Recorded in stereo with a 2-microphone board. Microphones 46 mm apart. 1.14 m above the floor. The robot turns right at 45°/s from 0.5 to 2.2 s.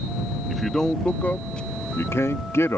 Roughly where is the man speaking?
Centre.